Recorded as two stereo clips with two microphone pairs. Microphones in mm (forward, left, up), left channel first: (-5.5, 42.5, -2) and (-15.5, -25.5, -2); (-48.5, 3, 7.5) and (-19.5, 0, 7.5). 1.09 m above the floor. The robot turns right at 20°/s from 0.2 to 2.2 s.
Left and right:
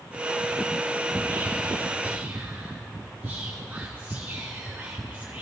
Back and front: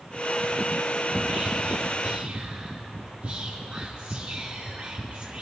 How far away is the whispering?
About 0.6 m.